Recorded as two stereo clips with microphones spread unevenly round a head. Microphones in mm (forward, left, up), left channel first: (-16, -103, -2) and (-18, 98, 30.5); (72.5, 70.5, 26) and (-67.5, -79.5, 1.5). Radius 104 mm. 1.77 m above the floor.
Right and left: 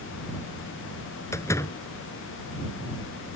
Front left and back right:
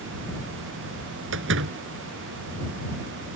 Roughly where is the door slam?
Behind.